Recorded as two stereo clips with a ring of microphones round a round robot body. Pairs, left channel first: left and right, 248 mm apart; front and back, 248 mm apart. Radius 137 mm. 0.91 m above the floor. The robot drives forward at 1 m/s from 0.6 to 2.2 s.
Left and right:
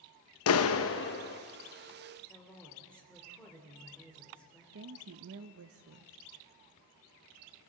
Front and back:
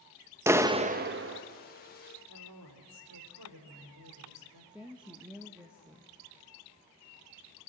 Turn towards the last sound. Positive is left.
turn(degrees=-95)